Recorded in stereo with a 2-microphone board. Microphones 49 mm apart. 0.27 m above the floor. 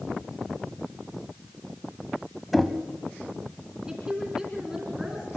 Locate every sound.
2.5 s knocking: centre (ahead or behind), 1.1 m
3.9 s a woman speaking: 10° right (ahead or behind), 3 m